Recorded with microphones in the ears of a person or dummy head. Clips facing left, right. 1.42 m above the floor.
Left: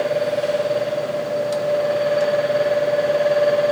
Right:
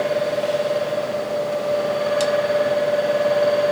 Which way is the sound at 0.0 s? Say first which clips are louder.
Left 1 dB; 20° left (ahead or behind).